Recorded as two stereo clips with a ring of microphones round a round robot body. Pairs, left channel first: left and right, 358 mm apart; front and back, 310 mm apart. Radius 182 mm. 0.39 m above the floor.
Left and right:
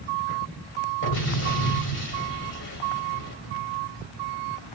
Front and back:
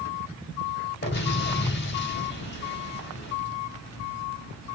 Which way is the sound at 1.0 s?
45° left.